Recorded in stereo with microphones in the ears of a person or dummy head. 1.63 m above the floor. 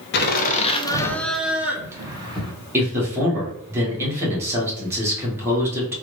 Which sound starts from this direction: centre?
A man speaking, at 2.7 s.